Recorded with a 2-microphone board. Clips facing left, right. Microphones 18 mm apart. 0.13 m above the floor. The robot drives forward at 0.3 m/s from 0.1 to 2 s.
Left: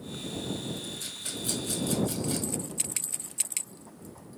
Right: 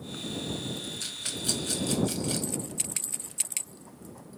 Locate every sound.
1.0 s a rattle: 25° right (ahead or behind), 0.7 m; by 2.6 s 20° right (ahead or behind), 0.8 m